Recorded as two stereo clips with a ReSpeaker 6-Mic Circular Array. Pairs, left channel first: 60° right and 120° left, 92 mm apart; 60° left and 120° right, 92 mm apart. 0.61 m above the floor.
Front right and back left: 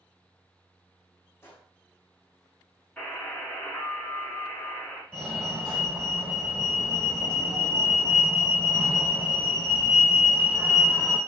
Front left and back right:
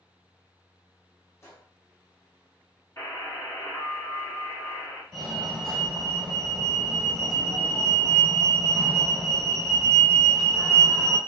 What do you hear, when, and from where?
1.4 s a gunshot: straight ahead, 0.8 m
3.0 s a buzzer: 10° left, 1.1 m
5.1 s a fire alarm: 130° left, 1.6 m